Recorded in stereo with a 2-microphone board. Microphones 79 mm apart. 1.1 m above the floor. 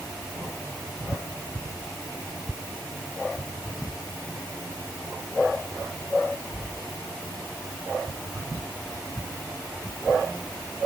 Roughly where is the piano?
I don't hear a piano.